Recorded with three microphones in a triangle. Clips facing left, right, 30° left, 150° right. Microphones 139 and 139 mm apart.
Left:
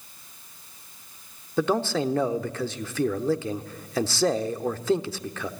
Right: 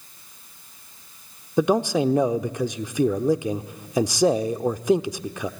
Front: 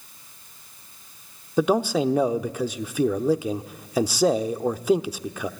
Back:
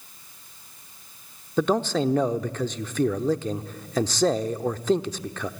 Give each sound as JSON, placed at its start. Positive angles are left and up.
{"t": 1.6, "sound": "a man speaking", "azimuth_deg": -35, "distance_m": 0.8}